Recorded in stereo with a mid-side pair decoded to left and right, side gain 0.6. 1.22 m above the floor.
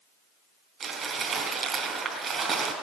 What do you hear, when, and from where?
0.8 s crumpling: 40° right, 3.5 m